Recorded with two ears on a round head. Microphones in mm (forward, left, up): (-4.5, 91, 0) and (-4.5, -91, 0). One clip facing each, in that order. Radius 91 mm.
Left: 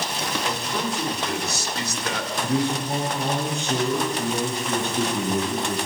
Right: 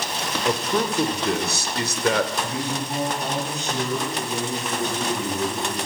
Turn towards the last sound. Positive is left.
turn(degrees=25)  # may be behind; listen again after turning